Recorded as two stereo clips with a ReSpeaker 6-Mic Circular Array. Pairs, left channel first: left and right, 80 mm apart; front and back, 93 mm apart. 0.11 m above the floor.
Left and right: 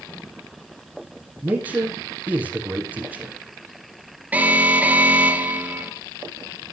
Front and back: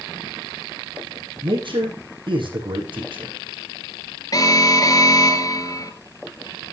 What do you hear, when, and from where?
1.4 s a man speaking: 155° right, 3.5 m
4.3 s an alarm: 25° right, 1.6 m